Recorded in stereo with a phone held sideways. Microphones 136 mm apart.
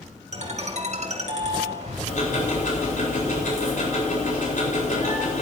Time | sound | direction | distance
0.3 | a ringtone | 55° right (ahead or behind) | 2.5 m
2.1 | ticking | 70° left (ahead or behind) | 4 m